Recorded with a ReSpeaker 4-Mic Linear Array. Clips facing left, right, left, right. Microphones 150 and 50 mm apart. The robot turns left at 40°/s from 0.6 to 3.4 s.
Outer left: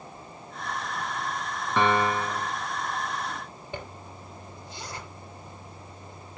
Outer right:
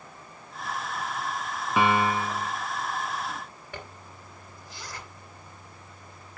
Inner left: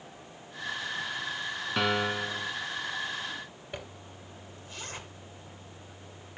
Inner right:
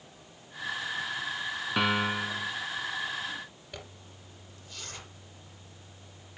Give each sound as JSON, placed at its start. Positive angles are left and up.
{"t": 1.8, "sound": "a piano", "side_deg": -10, "distance_m": 1.0}
{"t": 3.7, "sound": "a zipper", "side_deg": 20, "distance_m": 2.5}